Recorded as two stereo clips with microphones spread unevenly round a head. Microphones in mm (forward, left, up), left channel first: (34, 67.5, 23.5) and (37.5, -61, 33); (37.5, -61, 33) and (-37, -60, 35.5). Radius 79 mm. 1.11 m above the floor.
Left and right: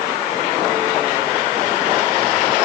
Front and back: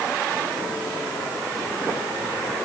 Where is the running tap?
No running tap in this recording.